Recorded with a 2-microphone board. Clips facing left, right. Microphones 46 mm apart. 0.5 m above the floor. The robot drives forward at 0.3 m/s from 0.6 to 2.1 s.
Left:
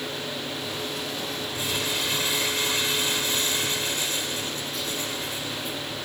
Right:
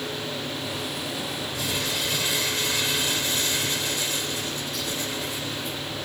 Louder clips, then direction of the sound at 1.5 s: Left 1 dB; 35° left (ahead or behind).